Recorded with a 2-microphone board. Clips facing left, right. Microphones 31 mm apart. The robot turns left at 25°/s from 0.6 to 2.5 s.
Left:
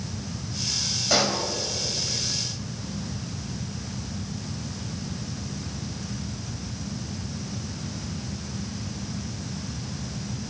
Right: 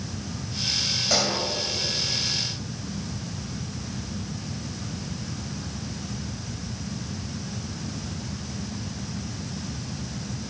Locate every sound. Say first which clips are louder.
1.1 s a pop: left 3 dB; 10° left (ahead or behind), 3.5 m; by 1.4 s centre (ahead or behind), 3.5 m